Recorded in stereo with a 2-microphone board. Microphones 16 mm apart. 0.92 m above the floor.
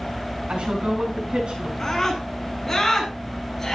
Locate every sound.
0.5 s a woman speaking: 70° right (ahead or behind), 8.5 m; by 1.7 s 60° right (ahead or behind), 9 m
1.8 s a scream: 20° left (ahead or behind), 9 m